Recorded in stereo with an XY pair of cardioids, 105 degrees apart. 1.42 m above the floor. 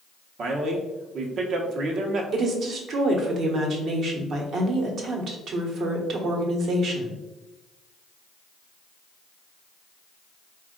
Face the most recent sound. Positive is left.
turn(degrees=-60)